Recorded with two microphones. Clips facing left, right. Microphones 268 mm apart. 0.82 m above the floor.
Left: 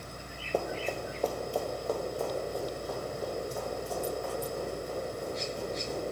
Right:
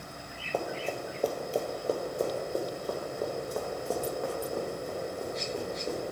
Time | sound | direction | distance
0.5 | running footsteps | 15° left (ahead or behind) | 0.9 m